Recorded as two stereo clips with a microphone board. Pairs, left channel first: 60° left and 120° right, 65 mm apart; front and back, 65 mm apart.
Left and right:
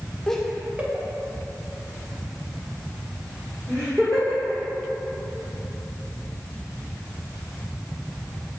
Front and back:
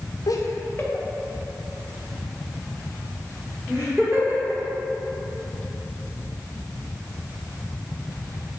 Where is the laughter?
20° right, 0.6 m; by 4.6 s 110° right, 3 m.